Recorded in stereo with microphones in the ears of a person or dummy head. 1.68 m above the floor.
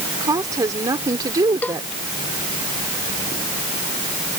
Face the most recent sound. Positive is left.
turn(degrees=10)  # may be behind; listen again after turning